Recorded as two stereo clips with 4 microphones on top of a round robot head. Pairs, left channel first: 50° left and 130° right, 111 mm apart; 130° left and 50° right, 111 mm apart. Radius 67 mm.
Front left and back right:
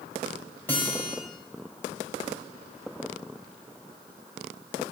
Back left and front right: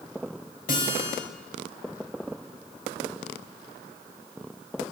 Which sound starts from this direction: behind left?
A guitar, at 0.7 s.